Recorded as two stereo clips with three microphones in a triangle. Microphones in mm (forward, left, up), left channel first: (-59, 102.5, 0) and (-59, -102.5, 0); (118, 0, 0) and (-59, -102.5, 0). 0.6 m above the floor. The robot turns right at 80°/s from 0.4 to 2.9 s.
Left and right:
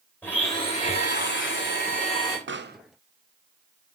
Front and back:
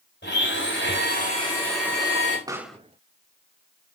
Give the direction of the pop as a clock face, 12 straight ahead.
3 o'clock.